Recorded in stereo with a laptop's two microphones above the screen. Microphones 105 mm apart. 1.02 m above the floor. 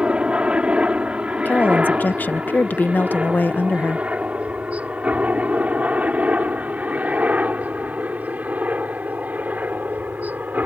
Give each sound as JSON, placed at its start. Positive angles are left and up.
{"t": 0.0, "sound": "a helicopter", "side_deg": -10}
{"t": 1.4, "sound": "a woman speaking", "side_deg": 15}